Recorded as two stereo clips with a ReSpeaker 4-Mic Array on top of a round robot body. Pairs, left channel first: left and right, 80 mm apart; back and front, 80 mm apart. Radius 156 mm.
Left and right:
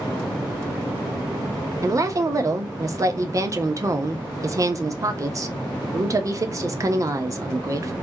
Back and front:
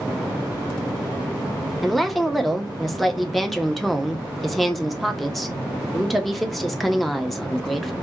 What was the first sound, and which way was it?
A woman speaking, 90° right.